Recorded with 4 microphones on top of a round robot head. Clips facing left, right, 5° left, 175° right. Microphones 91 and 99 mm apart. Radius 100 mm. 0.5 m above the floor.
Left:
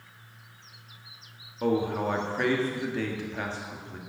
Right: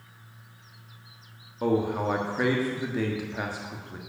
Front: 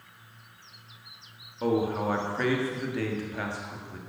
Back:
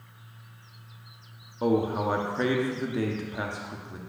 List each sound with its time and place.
1.6 s a man speaking: 150° right, 1.3 m